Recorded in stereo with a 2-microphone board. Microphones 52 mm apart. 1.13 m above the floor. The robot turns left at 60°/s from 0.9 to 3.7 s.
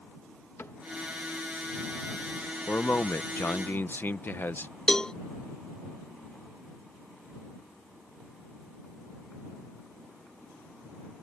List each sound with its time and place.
0.6 s a cupboard door: 60° left (ahead or behind)
2.7 s a man speaking: 130° left; by 4.7 s 65° left
4.9 s a cowbell: 15° left (ahead or behind)